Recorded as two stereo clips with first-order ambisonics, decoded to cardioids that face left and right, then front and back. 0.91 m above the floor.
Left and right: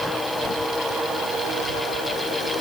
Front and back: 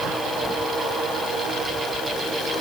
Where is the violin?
I don't hear a violin.